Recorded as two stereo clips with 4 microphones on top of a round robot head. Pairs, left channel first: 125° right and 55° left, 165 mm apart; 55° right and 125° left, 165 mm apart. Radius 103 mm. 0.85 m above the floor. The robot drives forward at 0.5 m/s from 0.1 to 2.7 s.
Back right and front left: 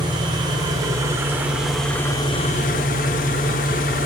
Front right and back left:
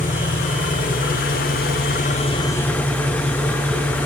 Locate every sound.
0.0 s an engine running: 10° right, 1.2 m; by 4.1 s 130° right, 0.5 m